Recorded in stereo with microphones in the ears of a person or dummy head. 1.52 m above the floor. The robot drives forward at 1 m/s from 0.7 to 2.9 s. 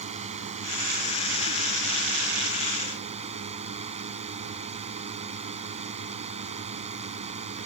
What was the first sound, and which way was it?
A drone, 35° right (ahead or behind).